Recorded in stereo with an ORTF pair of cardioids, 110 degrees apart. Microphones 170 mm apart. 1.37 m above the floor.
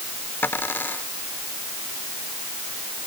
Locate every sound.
0.4 s a dropped coin: 10° left